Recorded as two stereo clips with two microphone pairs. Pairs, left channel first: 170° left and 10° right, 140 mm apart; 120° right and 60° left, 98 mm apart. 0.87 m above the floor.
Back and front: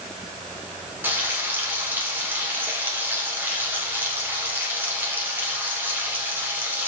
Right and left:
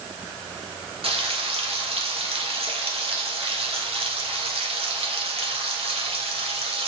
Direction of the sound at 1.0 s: 65° left.